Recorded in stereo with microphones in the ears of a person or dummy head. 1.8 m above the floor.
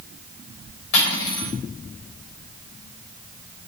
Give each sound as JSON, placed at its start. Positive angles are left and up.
{"t": 0.9, "sound": "cutlery clinking", "side_deg": 70, "distance_m": 6.0}